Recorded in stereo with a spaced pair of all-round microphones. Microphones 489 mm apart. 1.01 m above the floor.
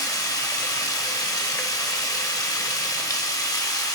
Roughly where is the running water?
Centre.